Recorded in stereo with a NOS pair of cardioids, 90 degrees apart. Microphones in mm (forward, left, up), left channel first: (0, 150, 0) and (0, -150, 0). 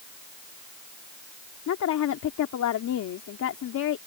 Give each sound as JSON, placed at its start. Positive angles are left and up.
{"t": 1.7, "sound": "a woman speaking", "azimuth_deg": 65}